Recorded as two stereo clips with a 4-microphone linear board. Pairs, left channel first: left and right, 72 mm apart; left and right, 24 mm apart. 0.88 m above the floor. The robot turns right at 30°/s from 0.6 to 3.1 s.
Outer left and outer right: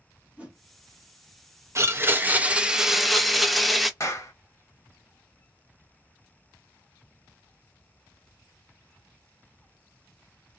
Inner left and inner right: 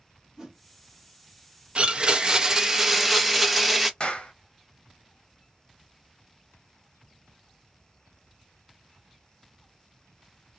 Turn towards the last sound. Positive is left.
turn(degrees=45)  # may be behind; listen again after turning